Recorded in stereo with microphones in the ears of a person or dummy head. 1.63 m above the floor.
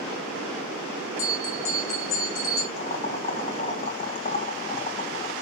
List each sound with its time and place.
1.2 s a bell: 60° left (ahead or behind), 4.5 m
2.8 s boiling: 45° left (ahead or behind), 1.9 m